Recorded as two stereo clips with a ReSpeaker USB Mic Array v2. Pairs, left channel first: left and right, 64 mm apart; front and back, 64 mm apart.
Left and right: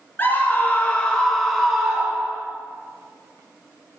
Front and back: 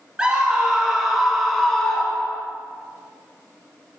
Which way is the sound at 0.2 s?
115° left.